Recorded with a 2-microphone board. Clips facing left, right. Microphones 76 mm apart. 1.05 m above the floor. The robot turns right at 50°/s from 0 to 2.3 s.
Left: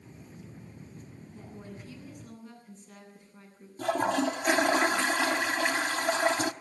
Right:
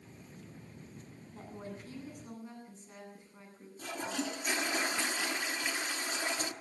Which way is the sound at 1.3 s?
70° right.